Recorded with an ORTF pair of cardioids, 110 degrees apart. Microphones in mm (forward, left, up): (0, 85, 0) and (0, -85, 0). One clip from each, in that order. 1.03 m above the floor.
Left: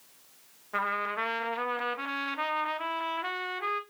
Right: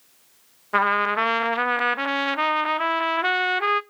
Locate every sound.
0.7 s a trumpet: 45° right, 0.5 m